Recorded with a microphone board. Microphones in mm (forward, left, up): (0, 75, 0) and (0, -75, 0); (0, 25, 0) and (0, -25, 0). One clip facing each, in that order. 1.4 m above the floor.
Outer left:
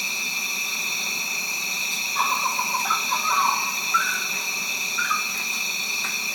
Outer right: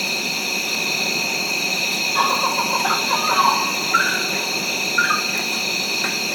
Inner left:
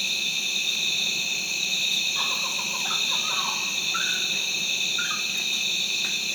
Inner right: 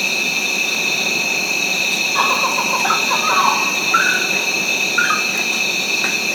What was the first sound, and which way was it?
An insect, 75° right (ahead or behind).